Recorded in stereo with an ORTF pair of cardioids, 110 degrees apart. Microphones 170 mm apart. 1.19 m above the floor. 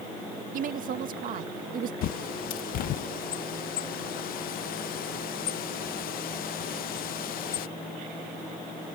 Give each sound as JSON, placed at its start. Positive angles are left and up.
{"t": 0.5, "sound": "a woman speaking", "azimuth_deg": -60}
{"t": 2.0, "sound": "a bird", "azimuth_deg": 60}